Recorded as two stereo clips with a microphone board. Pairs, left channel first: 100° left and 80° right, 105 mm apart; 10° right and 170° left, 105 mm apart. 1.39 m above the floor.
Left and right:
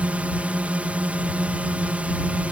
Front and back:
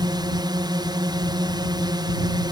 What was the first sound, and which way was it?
A drone, 155° right.